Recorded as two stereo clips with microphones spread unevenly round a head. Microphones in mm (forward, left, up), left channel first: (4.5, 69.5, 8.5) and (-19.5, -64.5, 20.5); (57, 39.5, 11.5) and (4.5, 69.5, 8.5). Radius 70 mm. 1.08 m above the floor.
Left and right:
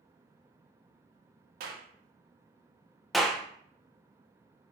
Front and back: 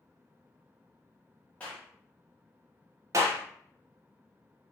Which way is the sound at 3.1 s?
165° left.